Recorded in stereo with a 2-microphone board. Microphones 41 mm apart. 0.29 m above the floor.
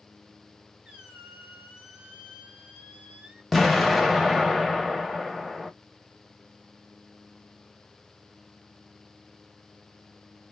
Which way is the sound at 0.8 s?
25° right (ahead or behind).